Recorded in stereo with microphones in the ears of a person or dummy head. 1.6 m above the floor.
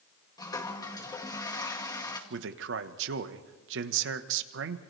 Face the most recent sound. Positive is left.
turn(degrees=-75)  # may be behind; listen again after turning